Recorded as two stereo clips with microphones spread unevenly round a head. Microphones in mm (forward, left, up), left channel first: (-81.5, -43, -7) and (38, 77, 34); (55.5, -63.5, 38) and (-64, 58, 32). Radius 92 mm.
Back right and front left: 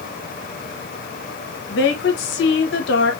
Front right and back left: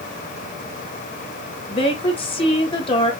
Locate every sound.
1.7 s a woman speaking: 105° right, 1.3 m